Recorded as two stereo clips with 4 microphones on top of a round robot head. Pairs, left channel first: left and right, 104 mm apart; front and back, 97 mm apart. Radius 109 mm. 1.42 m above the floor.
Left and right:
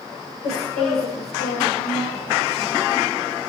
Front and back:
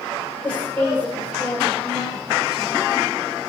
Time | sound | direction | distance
0.4 | a woman speaking | 75° left | 5.5 m